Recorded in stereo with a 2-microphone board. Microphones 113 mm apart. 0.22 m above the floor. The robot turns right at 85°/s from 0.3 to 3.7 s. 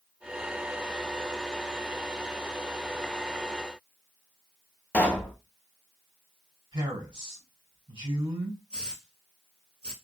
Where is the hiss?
60° right (ahead or behind), 1.4 m.